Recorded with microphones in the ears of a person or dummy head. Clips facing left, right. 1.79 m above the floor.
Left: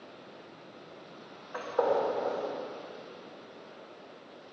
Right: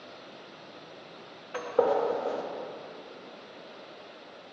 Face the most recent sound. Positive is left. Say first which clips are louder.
# right 3 dB
turn(degrees=-35)  # may be behind; listen again after turning